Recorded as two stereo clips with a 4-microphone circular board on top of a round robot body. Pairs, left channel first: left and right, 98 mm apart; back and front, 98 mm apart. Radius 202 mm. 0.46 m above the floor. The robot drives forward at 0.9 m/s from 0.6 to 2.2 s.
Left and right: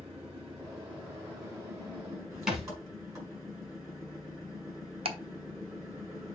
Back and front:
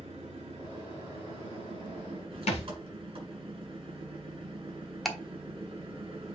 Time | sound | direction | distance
0.0 | an engine running | 25° right | 6 m
2.5 | a thud | 175° right | 1.1 m
5.0 | ticking | 90° right | 1.4 m